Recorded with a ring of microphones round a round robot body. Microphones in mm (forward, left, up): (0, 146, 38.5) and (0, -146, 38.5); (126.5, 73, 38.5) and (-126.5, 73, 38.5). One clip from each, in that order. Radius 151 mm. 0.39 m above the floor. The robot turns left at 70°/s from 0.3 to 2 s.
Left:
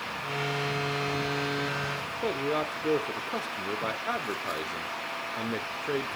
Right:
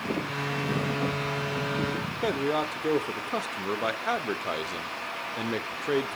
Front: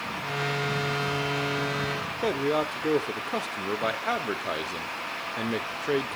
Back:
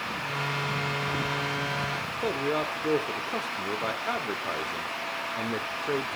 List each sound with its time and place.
2.2 s a man speaking: 50° right, 0.8 m